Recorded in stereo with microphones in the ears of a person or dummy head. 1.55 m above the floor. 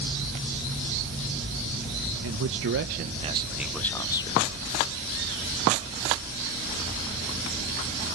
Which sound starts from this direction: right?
A man speaking, at 2.2 s.